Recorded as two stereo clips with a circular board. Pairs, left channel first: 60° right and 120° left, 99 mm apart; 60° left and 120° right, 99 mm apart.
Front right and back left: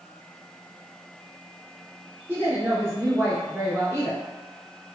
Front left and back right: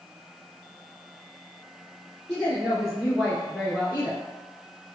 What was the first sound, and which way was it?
A woman speaking, 135° left.